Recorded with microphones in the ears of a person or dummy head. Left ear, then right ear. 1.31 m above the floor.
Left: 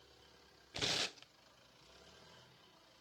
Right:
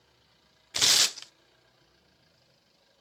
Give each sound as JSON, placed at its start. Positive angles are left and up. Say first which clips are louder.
{"t": 0.7, "sound": "tearing paper", "louder": "right 15 dB", "side_deg": -50}